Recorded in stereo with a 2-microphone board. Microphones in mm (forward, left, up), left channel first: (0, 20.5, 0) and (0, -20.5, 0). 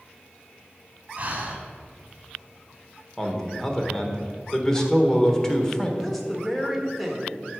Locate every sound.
1.2 s breathing: 35° right (ahead or behind), 1.6 m
3.2 s a man speaking: 15° left (ahead or behind), 1.4 m
6.0 s a woman speaking: 5° left (ahead or behind), 1.6 m